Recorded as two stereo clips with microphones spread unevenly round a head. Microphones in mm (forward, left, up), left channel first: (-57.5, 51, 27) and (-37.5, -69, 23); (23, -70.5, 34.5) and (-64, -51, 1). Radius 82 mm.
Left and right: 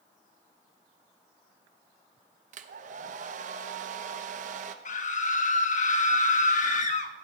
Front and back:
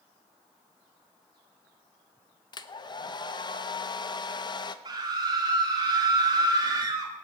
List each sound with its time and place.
2.5 s a hair dryer: 60° right, 0.7 m
4.8 s a scream: 115° left, 1.5 m